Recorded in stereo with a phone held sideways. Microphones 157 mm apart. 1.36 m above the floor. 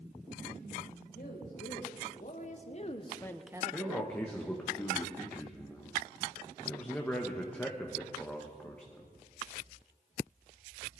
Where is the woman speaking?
60° left (ahead or behind), 3 m; by 4.7 s 80° right, 1.4 m.